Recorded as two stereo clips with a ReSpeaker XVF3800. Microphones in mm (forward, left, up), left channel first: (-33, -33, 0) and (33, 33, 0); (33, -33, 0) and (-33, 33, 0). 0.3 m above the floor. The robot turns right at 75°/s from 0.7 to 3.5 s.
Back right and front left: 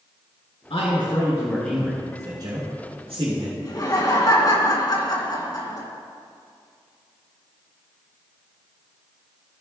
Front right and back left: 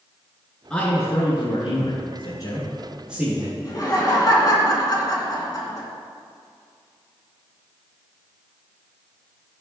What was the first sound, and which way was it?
A man speaking, 125° right.